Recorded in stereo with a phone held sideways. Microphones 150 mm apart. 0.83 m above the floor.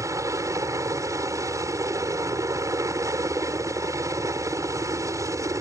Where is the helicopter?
20° right (ahead or behind).